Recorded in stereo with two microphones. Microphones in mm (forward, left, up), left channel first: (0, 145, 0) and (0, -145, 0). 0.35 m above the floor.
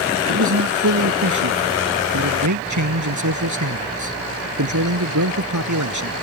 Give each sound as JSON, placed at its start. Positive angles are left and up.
{"t": 0.3, "sound": "a man speaking", "side_deg": -75}